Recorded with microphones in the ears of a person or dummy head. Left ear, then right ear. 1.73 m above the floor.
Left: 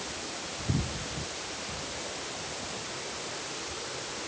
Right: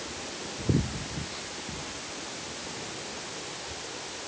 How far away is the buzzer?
I don't hear a buzzer.